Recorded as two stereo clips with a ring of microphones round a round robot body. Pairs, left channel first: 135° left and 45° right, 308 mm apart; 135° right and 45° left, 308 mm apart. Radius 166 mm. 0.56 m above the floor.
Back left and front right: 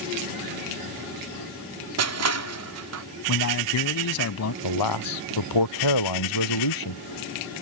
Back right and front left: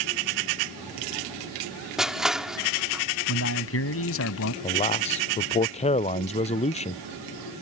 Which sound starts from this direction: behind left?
A man speaking, at 4.6 s.